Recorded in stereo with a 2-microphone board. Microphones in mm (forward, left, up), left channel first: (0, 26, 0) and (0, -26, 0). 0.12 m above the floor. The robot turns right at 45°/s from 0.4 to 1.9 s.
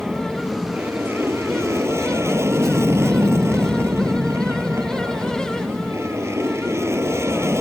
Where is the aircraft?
150° right; by 7.6 s 85° right.